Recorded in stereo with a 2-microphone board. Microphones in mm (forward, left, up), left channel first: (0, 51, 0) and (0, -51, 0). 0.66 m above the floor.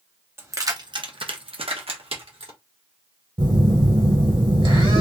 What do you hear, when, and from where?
0.4 s keys jangling: 20° right (ahead or behind), 0.6 m; by 2.5 s 55° right (ahead or behind), 1.2 m
3.4 s a phone buzzing: 50° right (ahead or behind), 1.4 m